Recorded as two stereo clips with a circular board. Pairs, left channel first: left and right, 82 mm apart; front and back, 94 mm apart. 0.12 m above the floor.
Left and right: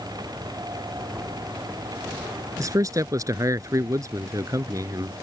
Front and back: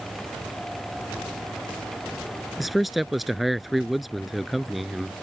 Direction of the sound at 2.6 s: 90° right.